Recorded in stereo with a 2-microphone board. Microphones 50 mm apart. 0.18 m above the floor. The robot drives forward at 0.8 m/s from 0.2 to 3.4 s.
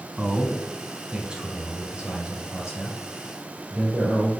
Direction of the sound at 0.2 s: 25° right (ahead or behind).